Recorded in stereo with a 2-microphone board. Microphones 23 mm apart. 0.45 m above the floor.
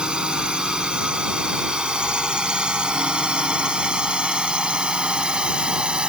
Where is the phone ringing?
No phone ringing in this recording.